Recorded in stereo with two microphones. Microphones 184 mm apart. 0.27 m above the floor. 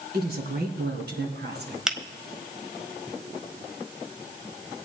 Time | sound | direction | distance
0.1 | a woman speaking | 60° right (ahead or behind) | 2.5 m
1.9 | a finger snap | 5° right (ahead or behind) | 1.4 m